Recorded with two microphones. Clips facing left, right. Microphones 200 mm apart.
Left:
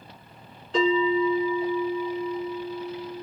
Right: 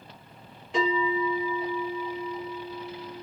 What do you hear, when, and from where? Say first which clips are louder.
0.7 s a bell: left 5 dB; 10° right (ahead or behind), 6.5 m